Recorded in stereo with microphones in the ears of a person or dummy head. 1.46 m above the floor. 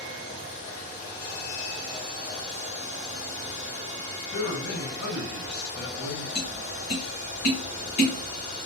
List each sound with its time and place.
4.3 s a man speaking: 65° left (ahead or behind), 1.8 m
6.3 s tapping: 50° left (ahead or behind), 1.2 m